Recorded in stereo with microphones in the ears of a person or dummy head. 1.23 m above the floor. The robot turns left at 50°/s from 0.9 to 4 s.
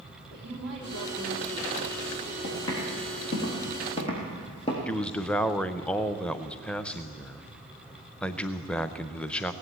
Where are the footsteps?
75° left (ahead or behind), 5.5 m; by 4.8 s 30° left (ahead or behind), 3.5 m.